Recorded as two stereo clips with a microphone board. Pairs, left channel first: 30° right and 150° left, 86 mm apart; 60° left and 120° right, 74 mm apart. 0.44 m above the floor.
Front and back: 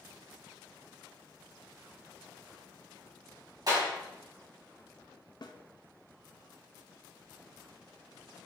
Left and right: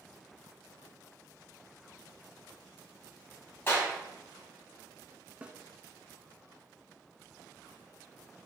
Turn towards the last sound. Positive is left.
turn(degrees=-50)